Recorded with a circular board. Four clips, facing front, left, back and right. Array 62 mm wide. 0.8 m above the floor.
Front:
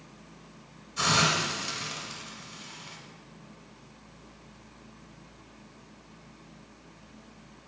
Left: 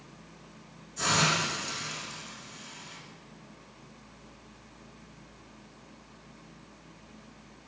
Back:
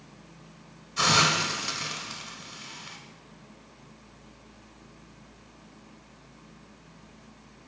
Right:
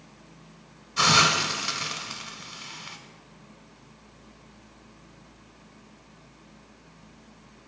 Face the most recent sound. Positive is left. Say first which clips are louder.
# right 6 dB, back 2 dB
turn(degrees=-110)